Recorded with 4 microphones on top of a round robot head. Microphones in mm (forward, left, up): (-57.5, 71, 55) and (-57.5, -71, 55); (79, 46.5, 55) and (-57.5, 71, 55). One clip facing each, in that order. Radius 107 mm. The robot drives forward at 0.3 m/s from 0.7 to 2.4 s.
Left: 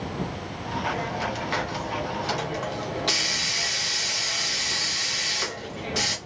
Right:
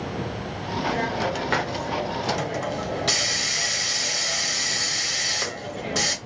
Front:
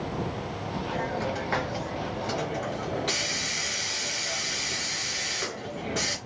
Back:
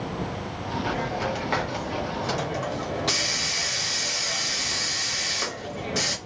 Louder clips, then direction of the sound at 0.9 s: Right 6 dB, even; 105° right.